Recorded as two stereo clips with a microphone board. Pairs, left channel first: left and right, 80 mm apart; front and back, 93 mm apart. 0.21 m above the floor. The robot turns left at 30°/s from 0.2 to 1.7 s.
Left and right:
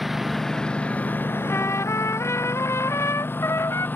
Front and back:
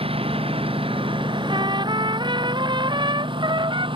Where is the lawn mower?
Straight behind; by 4.0 s 155° left.